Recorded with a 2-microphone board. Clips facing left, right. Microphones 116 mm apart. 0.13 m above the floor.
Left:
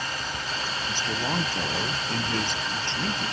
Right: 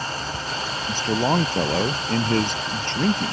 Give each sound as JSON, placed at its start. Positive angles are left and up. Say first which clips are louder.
{"t": 0.9, "sound": "a man speaking", "louder": "right 10 dB", "side_deg": -40}